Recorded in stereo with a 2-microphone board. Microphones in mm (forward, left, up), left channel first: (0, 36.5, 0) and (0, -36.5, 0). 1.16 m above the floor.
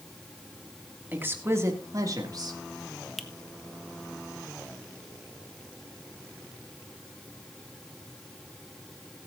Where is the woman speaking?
25° right (ahead or behind), 2 m; by 2.6 s 65° right (ahead or behind), 2.5 m.